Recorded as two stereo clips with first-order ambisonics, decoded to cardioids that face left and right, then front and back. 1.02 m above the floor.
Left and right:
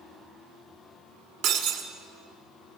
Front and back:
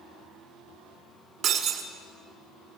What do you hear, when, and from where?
1.4 s breaking glass: 115° right, 2 m